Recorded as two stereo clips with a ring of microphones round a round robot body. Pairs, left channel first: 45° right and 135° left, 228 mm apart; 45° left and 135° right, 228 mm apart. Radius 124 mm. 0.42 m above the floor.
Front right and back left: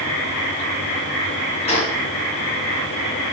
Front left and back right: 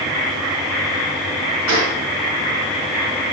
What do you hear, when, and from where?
1.7 s a gunshot: 110° right, 6.5 m